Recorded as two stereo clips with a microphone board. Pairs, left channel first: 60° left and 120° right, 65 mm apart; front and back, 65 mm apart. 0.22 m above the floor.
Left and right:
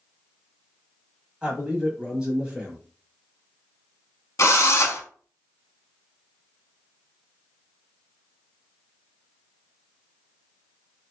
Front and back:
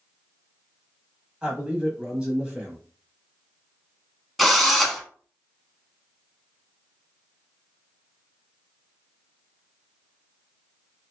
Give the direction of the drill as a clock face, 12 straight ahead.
9 o'clock.